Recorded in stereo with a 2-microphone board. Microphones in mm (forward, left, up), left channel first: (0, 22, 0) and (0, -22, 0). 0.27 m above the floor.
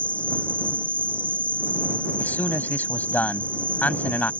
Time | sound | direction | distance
0.0 | an insect | 30° left (ahead or behind) | ?
2.2 | a man speaking | 45° left (ahead or behind) | ?